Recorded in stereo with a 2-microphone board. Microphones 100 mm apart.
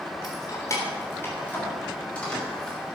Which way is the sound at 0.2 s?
45° left (ahead or behind).